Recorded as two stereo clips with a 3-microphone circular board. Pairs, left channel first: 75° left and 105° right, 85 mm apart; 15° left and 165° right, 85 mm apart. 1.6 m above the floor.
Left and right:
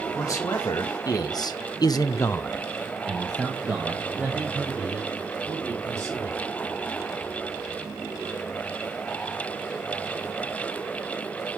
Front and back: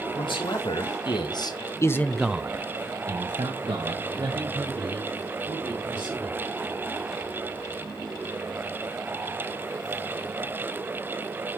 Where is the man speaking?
25° left, 2 m; by 6.4 s 170° right, 4 m.